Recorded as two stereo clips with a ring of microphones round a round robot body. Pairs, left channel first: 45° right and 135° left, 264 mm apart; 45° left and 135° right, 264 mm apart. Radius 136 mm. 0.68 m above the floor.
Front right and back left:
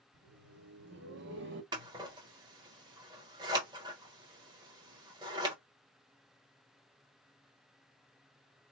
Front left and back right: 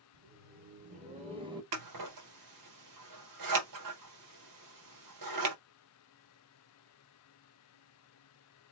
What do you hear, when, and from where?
0.1 s laughter: straight behind, 2 m; by 1.6 s 155° left, 1.5 m
1.7 s scissors: 150° right, 1.2 m